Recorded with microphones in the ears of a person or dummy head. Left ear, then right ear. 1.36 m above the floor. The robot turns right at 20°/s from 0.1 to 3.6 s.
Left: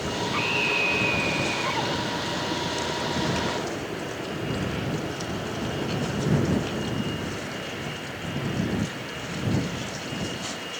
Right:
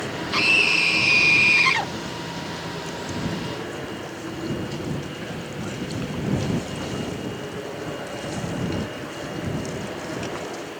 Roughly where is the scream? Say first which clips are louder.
Right 7 dB; right.